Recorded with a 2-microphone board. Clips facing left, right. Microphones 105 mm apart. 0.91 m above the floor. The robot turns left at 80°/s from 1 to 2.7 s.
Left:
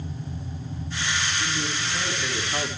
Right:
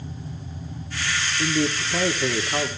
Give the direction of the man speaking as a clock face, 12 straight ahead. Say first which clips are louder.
Right 6 dB; 2 o'clock.